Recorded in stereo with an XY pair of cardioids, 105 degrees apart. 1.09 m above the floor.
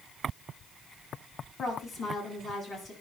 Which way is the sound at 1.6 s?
40° left.